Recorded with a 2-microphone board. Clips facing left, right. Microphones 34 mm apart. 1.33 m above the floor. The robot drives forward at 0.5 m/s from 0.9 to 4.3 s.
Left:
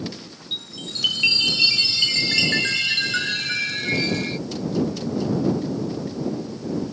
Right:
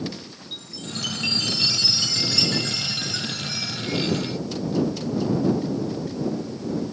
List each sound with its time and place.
0.5 s a chime: 40° left (ahead or behind); by 4.4 s 50° left (ahead or behind)